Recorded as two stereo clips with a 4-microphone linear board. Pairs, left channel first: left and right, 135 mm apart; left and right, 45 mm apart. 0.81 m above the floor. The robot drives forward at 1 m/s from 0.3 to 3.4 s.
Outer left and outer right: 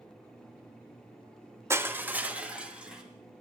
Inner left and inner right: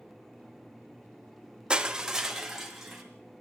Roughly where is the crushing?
Centre.